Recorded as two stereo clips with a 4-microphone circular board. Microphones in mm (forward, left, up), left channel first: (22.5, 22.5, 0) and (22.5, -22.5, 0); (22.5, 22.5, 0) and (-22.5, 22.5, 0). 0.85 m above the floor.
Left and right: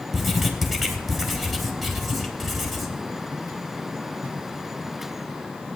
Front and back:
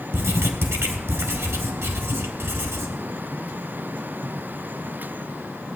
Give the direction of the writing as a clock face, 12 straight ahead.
6 o'clock.